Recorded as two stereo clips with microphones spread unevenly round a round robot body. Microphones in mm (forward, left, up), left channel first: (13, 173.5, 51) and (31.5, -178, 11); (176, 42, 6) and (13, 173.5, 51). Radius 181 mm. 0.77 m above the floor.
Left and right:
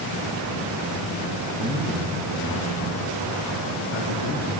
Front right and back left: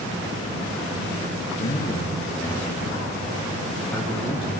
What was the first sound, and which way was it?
A man speaking, straight ahead.